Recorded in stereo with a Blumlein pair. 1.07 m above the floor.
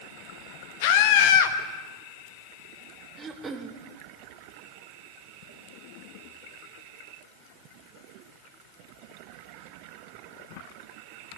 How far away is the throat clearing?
About 1.1 m.